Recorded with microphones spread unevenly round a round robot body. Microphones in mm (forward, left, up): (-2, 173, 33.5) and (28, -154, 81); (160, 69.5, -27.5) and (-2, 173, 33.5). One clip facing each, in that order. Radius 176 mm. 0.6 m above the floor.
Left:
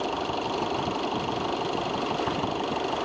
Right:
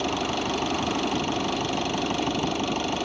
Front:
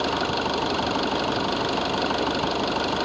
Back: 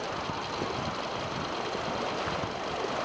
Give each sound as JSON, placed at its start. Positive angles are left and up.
{"t": 0.0, "sound": "an engine running", "azimuth_deg": -35}